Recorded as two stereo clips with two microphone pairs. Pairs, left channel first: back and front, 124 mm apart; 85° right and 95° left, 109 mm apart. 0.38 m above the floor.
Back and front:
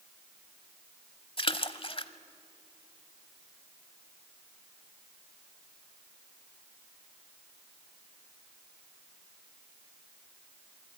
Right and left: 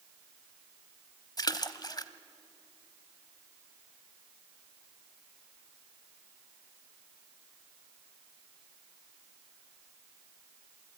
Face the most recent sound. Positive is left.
turn(degrees=-135)